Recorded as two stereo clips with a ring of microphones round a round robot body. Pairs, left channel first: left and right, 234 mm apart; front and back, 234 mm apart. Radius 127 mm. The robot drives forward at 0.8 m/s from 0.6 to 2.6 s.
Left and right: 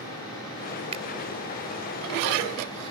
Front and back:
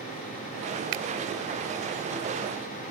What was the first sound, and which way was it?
A finger snap, 155° right.